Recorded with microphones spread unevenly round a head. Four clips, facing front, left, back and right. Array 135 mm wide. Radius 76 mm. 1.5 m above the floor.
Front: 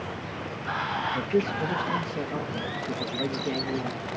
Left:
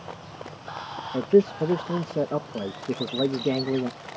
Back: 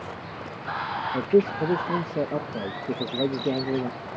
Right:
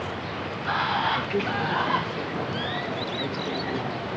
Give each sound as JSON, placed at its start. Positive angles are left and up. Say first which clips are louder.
{"t": 0.0, "sound": "running water", "louder": "right 8 dB, front 1 dB", "azimuth_deg": -65}
{"t": 1.1, "sound": "a man speaking", "louder": "left 7 dB, back 7 dB", "azimuth_deg": 140}
{"t": 2.9, "sound": "a bird", "louder": "left 4 dB, back 6 dB", "azimuth_deg": 125}